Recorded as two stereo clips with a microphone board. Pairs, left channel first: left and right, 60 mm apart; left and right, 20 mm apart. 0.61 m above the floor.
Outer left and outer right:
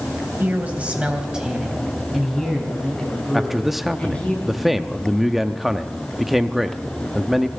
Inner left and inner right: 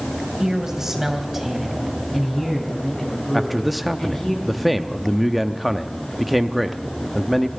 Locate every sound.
0.4 s a man speaking: 30° right (ahead or behind), 3 m; by 4.3 s 20° left (ahead or behind), 5 m
3.3 s a man speaking: 5° right (ahead or behind), 0.6 m